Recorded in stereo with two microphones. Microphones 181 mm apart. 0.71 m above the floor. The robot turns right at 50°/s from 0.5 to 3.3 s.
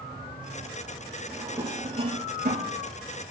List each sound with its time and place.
1.3 s a drawer: centre (ahead or behind), 4.5 m; by 2.7 s 75° right (ahead or behind), 4.5 m